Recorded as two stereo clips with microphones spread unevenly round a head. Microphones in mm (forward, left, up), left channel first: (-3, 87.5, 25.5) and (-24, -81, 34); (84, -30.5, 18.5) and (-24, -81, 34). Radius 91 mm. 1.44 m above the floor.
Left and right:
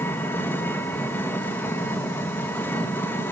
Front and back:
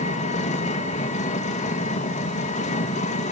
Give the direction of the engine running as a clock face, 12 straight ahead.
12 o'clock.